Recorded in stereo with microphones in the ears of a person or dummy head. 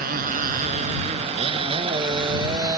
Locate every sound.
0.0 s a motorcycle: 55° right (ahead or behind); by 2.8 s 25° right (ahead or behind)